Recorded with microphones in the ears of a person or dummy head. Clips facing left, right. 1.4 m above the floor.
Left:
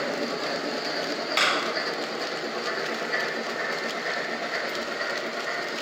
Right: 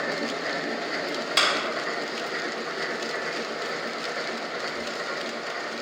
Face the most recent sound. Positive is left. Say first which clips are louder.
# right 2 dB
turn(degrees=-15)  # may be behind; listen again after turning